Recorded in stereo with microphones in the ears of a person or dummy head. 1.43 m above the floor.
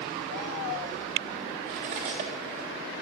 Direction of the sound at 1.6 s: 25° right (ahead or behind).